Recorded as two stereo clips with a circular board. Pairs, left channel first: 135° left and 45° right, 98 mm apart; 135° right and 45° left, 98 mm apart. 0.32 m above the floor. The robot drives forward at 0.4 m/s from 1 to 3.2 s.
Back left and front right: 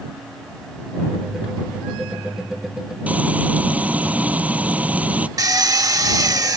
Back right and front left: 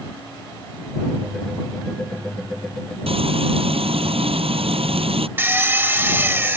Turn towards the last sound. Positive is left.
turn(degrees=-15)